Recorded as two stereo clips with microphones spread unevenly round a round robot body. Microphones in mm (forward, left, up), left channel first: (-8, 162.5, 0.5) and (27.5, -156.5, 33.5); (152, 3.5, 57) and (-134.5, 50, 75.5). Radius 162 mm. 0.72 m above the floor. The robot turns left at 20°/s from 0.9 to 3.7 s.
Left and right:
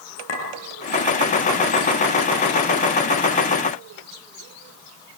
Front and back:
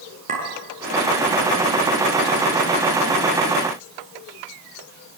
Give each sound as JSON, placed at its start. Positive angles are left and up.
{"t": 0.3, "sound": "a clink", "azimuth_deg": 110, "distance_m": 6.5}